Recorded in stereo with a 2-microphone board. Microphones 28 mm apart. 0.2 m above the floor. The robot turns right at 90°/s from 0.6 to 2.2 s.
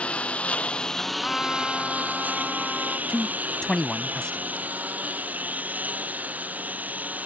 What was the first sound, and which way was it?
A lawn mower, 45° left (ahead or behind).